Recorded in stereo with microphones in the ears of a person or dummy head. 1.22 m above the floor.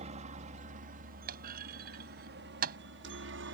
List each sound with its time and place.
0.0 s a helicopter: 35° right (ahead or behind); by 3.5 s 60° right (ahead or behind)
1.3 s a clunk: 55° right (ahead or behind)